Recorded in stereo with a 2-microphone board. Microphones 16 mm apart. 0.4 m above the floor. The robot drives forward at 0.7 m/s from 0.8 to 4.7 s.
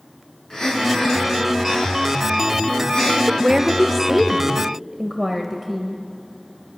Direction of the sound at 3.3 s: 15° right (ahead or behind).